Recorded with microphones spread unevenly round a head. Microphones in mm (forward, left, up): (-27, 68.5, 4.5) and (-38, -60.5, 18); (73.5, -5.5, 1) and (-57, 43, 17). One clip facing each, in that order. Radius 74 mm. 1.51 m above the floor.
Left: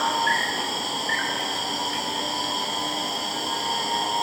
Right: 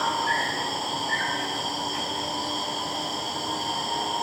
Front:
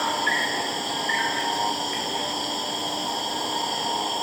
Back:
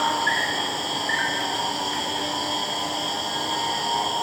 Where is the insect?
50° left, 4 m.